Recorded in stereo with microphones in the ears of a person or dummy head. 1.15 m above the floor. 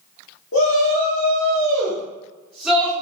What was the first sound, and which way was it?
A shout, 55° left (ahead or behind).